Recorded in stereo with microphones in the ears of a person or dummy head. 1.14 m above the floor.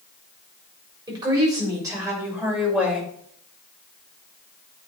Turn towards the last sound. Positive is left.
turn(degrees=0)  # may be behind; listen again after turning